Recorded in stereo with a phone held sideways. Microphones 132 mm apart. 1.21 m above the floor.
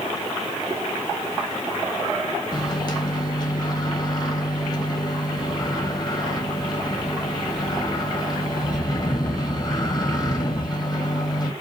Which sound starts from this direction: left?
A microwave, at 2.5 s.